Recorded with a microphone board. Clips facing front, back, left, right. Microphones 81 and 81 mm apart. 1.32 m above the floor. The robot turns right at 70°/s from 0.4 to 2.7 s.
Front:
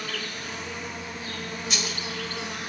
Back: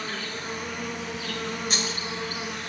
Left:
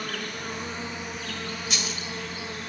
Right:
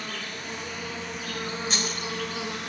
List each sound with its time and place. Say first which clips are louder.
0.0 s an insect: back 1 dB, left 2 dB; 120° left, 5.5 m; by 2.7 s 75° right, 5.5 m
1.7 s a dropped coin: back 2 dB, right 2 dB; 135° right, 1.7 m; by 2.1 s 110° right, 1.7 m